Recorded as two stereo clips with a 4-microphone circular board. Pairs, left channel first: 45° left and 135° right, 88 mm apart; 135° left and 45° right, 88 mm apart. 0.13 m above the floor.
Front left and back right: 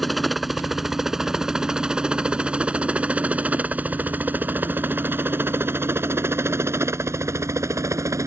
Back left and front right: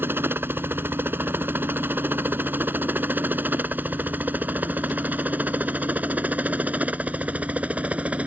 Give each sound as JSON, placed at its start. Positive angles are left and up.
{"t": 0.0, "sound": "a helicopter", "azimuth_deg": -45}